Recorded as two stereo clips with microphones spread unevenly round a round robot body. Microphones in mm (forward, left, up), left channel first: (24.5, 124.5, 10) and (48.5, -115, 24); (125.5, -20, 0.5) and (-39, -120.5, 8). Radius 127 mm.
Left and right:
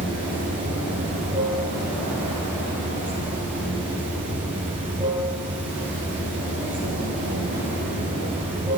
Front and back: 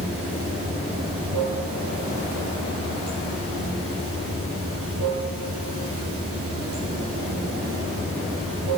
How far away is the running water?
About 8 m.